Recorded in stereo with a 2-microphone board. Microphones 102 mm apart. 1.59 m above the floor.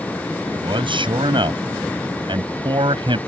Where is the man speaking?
60° right (ahead or behind).